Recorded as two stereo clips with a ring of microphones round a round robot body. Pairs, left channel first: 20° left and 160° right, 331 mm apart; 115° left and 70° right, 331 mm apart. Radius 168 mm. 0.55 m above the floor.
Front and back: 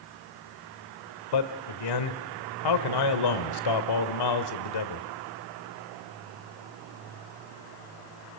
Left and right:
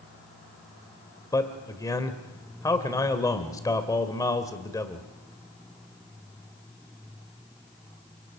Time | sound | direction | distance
1.3 | a man speaking | 30° left | 1.9 m